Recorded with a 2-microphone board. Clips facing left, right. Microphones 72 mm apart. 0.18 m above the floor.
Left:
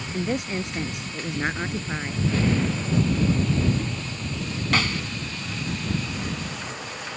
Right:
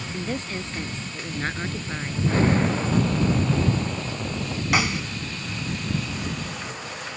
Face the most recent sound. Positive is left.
turn(degrees=-15)  # may be behind; listen again after turning